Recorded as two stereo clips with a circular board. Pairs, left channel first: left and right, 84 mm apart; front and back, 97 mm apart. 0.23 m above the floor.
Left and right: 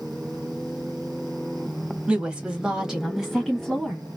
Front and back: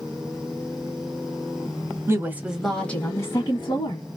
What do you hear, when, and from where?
2.1 s a woman speaking: 155° right, 1.1 m; by 4.0 s straight ahead, 1.6 m